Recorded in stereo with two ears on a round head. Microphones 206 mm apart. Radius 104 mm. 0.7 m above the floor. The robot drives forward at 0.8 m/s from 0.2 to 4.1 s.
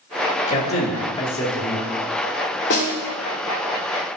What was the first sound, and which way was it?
A man speaking, 30° left (ahead or behind).